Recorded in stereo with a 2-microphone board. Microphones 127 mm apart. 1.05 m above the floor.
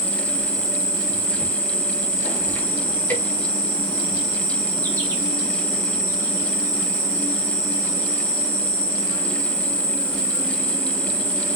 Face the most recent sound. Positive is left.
turn(degrees=15)  # may be behind; listen again after turning